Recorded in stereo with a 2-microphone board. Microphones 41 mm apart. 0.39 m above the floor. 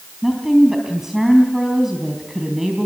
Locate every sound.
0.2 s a woman speaking: 10° right (ahead or behind), 3.5 m